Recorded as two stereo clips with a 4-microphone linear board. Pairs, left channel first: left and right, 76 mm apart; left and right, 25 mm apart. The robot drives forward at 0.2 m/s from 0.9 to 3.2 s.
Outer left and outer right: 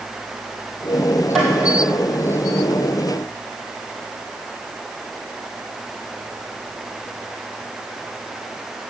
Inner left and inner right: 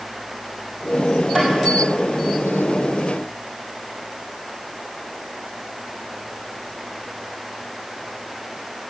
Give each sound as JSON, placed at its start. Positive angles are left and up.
{"t": 1.4, "sound": "tapping", "side_deg": 0, "distance_m": 2.5}